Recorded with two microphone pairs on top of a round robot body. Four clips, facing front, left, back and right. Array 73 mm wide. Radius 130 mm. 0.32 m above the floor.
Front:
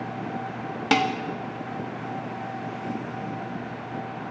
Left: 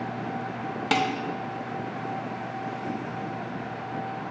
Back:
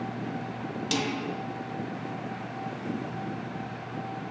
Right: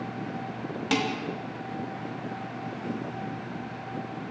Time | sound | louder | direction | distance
0.9 | dishes clattering | left 3 dB, front 9 dB | 25° left | 1.6 m